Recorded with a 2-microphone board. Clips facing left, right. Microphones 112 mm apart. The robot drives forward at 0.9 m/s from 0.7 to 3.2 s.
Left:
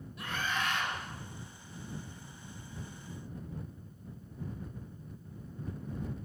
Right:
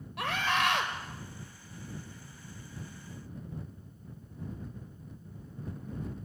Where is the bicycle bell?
I don't hear a bicycle bell.